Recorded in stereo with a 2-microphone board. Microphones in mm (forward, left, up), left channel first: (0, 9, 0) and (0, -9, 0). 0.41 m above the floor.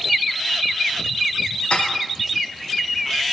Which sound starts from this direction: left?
Dishes clattering, at 1.7 s.